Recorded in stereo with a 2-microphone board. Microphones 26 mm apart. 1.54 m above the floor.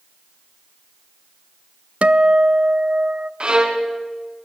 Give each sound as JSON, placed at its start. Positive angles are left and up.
{"t": 2.0, "sound": "a guitar", "side_deg": -65, "distance_m": 0.8}
{"t": 3.4, "sound": "a violin", "side_deg": -40, "distance_m": 2.5}